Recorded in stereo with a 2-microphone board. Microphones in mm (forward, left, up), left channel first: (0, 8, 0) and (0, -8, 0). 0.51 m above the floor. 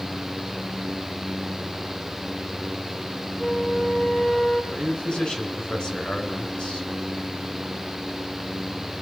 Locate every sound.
3.4 s a flute: 75° left (ahead or behind), 7 m
4.7 s a man speaking: 65° left (ahead or behind), 6.5 m